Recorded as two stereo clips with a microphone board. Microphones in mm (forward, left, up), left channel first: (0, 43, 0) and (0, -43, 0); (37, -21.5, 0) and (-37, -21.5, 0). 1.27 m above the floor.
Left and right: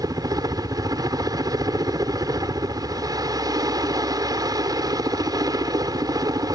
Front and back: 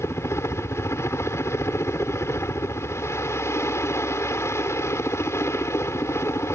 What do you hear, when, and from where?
0.0 s a helicopter: 50° right